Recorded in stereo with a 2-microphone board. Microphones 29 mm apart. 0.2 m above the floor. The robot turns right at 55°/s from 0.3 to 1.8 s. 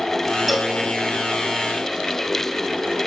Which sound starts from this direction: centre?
A cowbell, at 0.5 s.